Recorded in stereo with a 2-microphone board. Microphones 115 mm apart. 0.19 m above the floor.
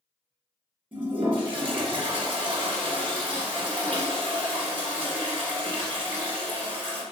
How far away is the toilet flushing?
About 1.9 m.